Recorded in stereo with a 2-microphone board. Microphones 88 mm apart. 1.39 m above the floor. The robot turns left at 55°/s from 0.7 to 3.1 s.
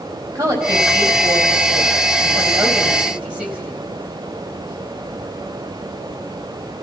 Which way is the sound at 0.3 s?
35° right (ahead or behind).